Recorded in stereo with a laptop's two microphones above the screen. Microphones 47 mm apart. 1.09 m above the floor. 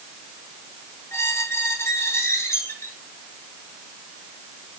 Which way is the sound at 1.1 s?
75° left (ahead or behind).